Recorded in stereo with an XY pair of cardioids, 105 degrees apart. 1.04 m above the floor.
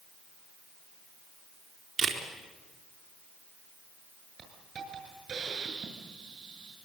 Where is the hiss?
50° right, 7.5 m.